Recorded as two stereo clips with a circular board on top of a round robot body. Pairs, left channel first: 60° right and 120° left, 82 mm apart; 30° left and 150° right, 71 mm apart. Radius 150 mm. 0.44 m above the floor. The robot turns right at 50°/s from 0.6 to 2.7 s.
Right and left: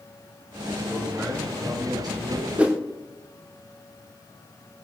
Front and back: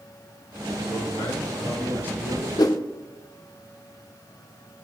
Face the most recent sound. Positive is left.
turn(degrees=50)